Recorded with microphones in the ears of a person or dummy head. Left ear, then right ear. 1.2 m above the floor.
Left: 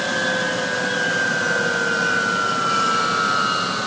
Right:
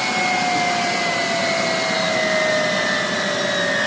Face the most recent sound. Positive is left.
No sound to turn to.